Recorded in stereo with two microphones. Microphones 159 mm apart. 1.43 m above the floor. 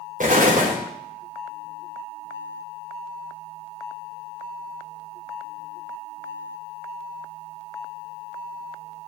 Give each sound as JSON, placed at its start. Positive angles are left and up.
{"t": 0.2, "sound": "an explosion", "side_deg": -55, "distance_m": 1.2}